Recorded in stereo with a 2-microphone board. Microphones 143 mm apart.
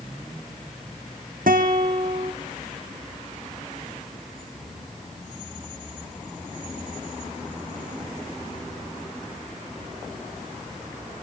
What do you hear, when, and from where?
1.5 s a guitar: 80° right, 2.5 m